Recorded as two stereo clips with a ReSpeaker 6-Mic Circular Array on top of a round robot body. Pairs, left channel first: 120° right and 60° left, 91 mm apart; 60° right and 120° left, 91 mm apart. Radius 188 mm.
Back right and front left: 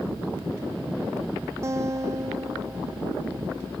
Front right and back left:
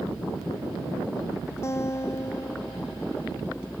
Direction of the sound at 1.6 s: Straight ahead.